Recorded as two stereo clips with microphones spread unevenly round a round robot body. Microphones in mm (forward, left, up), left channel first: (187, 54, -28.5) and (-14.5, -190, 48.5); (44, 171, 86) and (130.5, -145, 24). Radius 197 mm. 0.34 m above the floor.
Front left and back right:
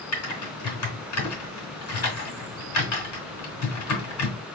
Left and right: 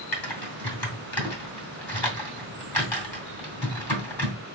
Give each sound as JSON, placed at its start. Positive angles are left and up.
{"t": 0.1, "sound": "typing on a keyboard", "azimuth_deg": 20, "distance_m": 2.5}